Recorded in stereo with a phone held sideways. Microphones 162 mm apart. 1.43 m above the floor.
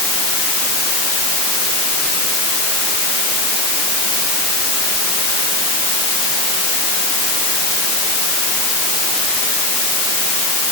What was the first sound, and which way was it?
Only background noise.